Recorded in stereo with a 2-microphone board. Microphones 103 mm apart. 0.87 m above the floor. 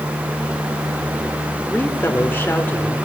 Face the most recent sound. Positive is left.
turn(degrees=20)  # may be behind; listen again after turning